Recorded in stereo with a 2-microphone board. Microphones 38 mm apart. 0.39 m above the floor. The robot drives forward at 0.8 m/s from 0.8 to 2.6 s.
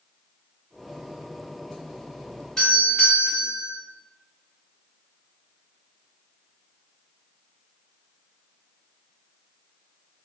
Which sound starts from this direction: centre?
A doorbell, at 2.6 s.